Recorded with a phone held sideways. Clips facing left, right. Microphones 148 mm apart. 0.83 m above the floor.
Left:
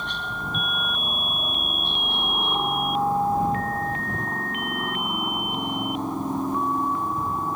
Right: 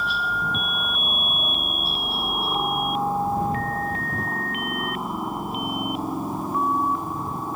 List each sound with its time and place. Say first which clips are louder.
0.0 s a helicopter: right 5 dB; 5° right (ahead or behind)